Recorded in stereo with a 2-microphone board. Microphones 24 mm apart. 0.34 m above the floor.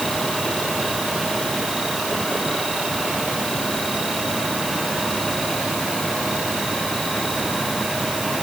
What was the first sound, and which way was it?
Only background noise.